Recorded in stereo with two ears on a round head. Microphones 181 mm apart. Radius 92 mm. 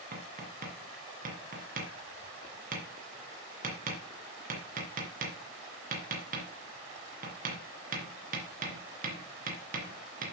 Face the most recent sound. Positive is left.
turn(degrees=-45)  # may be behind; listen again after turning